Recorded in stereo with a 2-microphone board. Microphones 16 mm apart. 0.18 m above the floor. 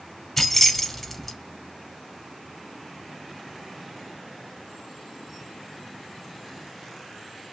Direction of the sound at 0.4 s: 15° left (ahead or behind).